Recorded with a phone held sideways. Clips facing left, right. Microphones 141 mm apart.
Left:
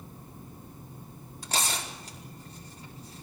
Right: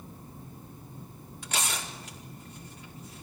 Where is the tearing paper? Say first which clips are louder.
Left 2 dB; 35° left (ahead or behind), 4.5 m.